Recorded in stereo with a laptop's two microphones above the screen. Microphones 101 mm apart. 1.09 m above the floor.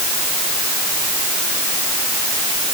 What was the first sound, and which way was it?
Only background noise.